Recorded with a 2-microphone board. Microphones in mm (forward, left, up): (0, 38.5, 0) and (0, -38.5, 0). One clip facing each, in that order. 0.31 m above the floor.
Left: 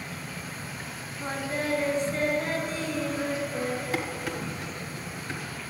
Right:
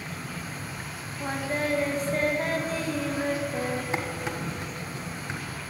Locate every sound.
0.0 s an insect: 60° right (ahead or behind), 3 m
1.2 s singing: 40° right (ahead or behind), 2.5 m
3.9 s dishes clattering: 20° right (ahead or behind), 1.7 m